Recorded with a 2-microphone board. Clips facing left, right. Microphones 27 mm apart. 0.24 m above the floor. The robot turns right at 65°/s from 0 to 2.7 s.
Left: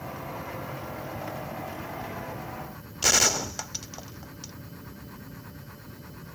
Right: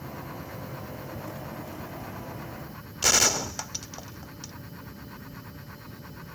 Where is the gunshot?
Centre (ahead or behind), 0.6 m.